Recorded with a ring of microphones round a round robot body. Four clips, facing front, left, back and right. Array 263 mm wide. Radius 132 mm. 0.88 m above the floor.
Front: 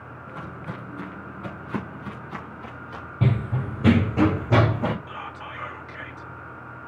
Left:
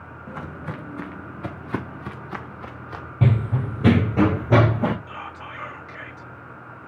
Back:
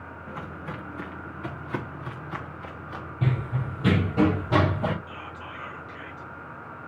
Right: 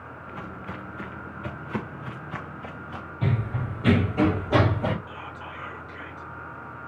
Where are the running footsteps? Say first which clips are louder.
Left 6 dB, front 4 dB; 65° left, 2.0 m; by 4.9 s 75° left, 4.5 m.